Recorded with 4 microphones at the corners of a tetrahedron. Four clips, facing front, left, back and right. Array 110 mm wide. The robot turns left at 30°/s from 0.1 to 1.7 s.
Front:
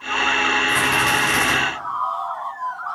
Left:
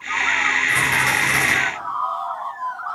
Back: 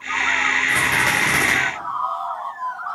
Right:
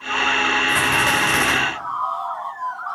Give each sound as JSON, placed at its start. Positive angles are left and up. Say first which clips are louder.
{"t": 0.7, "sound": "a rattle", "louder": "right 1 dB, front 1 dB", "azimuth_deg": -115, "distance_m": 7.0}